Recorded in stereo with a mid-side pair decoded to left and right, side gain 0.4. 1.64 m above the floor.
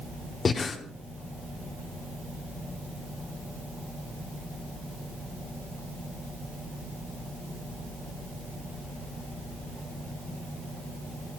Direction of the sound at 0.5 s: 45° left.